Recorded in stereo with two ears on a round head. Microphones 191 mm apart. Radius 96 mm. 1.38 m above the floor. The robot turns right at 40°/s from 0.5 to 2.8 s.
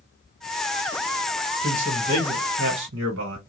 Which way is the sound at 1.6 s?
160° right.